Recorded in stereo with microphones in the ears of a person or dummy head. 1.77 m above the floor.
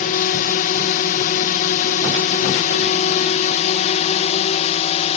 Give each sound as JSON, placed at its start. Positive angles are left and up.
{"t": 0.0, "sound": "a drone", "side_deg": 45}